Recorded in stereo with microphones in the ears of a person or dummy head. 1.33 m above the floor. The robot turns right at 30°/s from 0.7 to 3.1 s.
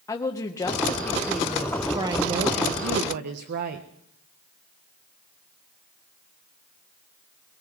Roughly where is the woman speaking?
Behind.